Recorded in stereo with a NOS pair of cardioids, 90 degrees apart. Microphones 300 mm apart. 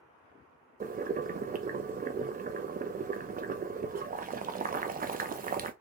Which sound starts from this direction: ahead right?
Boiling, at 0.8 s.